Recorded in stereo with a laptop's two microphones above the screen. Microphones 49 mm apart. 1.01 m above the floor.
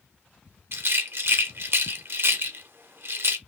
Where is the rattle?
55° right (ahead or behind), 0.5 m.